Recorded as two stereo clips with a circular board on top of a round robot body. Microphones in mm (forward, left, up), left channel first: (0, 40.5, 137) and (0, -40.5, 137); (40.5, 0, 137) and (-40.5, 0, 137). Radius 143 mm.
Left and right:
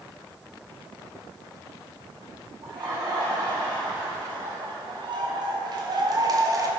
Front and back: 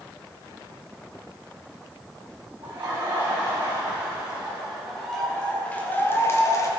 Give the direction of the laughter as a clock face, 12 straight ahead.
4 o'clock.